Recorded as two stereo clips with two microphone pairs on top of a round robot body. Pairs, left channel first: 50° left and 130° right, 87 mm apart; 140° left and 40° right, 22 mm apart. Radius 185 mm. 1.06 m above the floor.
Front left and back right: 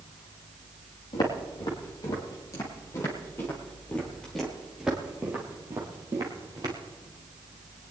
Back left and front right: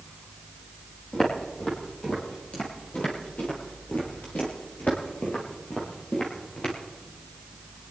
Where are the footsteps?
90° left, 3.5 m; by 6.8 s straight behind, 2.5 m.